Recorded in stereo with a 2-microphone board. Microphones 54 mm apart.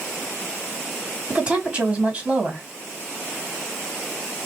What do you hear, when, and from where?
1.3 s a woman speaking: 20° right (ahead or behind), 1.9 m